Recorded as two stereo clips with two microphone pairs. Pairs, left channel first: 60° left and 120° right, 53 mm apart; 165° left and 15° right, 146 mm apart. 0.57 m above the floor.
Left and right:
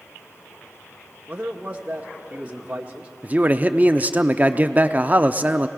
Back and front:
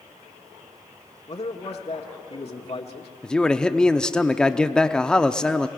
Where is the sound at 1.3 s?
175° right, 1.4 m.